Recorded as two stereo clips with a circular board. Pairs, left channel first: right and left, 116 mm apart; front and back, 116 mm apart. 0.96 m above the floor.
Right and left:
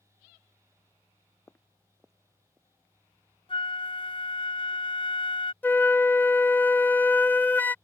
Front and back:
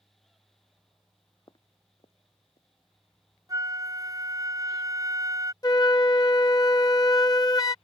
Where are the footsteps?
30° right; by 2.7 s 20° left.